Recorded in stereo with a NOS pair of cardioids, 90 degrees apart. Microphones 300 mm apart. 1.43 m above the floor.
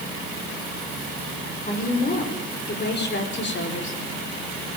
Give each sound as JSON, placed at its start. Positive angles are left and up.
{"t": 1.6, "sound": "a woman speaking", "azimuth_deg": 30, "distance_m": 6.0}